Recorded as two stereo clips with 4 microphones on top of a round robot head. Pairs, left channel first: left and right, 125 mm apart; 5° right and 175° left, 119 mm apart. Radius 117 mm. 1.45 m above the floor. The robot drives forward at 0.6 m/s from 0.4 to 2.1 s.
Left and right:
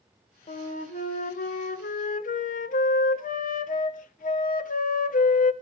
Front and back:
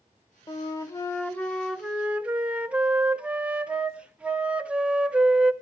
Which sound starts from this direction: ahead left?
A flute, at 0.5 s.